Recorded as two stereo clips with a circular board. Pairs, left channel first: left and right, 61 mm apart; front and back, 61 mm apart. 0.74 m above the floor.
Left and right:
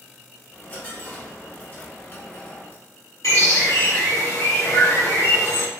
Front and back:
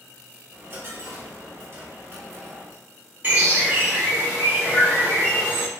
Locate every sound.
0.5 s a dropped coin: 145° left, 1.0 m
3.2 s a bird: 120° left, 1.2 m